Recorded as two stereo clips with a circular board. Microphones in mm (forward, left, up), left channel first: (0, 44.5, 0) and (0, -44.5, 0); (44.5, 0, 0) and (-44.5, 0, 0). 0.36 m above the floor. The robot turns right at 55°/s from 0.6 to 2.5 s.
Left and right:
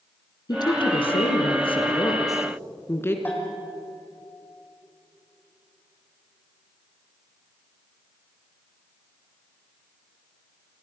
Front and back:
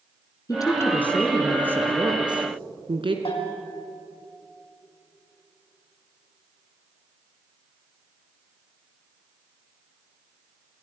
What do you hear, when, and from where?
0.5 s a woman speaking: 50° left, 3.5 m; by 3.1 s 155° left, 3.5 m
3.2 s a bell: 20° left, 6 m